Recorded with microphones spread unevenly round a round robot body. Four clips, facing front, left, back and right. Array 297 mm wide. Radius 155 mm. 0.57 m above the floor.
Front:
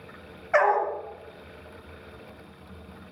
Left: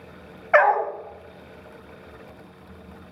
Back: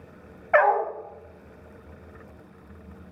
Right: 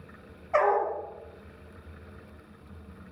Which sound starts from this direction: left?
A dog barking, at 0.5 s.